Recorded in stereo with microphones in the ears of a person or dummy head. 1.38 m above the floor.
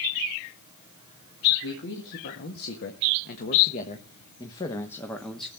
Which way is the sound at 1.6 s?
70° left (ahead or behind).